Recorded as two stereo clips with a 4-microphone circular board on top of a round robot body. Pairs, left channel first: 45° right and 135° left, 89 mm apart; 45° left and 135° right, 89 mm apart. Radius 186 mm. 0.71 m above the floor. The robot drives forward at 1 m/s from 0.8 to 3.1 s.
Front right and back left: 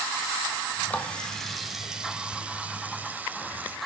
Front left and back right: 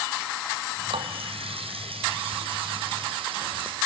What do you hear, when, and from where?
0.9 s a running tap: 120° right, 1.7 m; by 3.8 s 155° right, 3.5 m